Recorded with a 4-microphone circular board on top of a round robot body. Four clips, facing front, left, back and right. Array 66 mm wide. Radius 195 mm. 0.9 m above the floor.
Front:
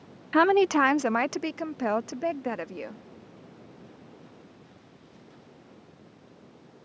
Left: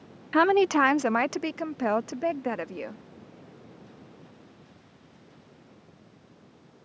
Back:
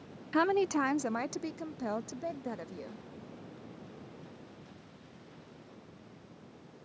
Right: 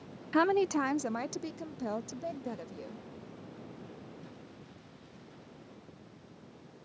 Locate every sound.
0.3 s a woman speaking: 40° left; by 3.0 s 55° left